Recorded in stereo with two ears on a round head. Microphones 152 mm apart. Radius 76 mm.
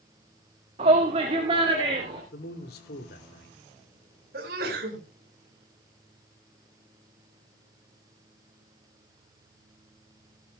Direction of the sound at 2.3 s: 60° left (ahead or behind).